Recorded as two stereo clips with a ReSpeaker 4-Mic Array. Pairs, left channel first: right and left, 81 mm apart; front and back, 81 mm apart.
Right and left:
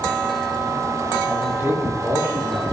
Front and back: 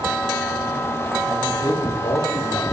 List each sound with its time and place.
1.3 s a man speaking: 25° left, 4.5 m; by 2.6 s 35° left, 4 m